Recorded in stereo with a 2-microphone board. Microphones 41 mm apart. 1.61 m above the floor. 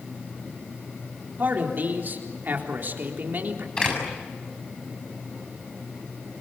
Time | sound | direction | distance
1.4 | a man speaking | 50° right (ahead or behind) | 3.5 m
3.8 | a door slam | 15° left (ahead or behind) | 7 m